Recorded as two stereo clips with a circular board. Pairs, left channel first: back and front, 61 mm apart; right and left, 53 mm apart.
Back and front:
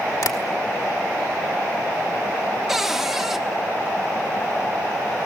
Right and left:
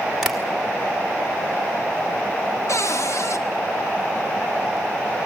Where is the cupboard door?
85° right, 1.2 m.